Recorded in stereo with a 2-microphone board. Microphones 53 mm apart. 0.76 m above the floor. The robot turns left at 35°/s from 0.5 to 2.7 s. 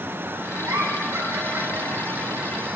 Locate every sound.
0.6 s a giggle: 80° right, 6 m; by 2.8 s 10° right (ahead or behind), 6 m